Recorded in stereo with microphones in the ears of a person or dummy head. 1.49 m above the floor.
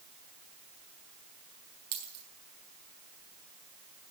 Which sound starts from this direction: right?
A dropped coin, at 1.9 s.